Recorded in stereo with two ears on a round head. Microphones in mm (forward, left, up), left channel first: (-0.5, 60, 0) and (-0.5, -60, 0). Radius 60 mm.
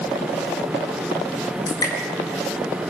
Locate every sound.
1.7 s dripping: 30° left (ahead or behind), 6.5 m